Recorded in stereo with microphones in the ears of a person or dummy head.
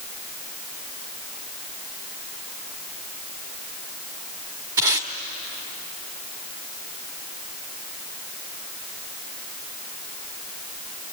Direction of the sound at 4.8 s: 15° right (ahead or behind).